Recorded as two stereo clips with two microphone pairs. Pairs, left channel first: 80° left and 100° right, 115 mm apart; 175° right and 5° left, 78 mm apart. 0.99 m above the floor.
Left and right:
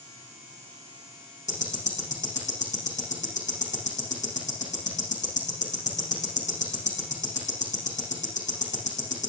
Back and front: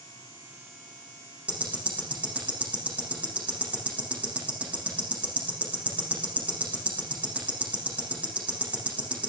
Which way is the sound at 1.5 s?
80° left.